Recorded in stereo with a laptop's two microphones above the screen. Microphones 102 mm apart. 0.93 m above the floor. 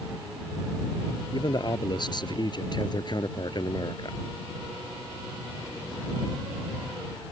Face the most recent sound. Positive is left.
turn(degrees=45)  # may be behind; listen again after turning